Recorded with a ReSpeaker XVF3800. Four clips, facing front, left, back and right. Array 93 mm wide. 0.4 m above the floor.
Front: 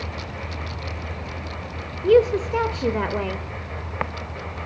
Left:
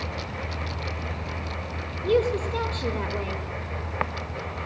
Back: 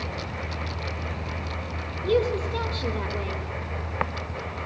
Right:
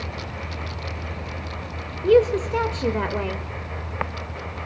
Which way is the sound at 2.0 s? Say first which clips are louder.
Right 6 dB, front 7 dB; 35° right.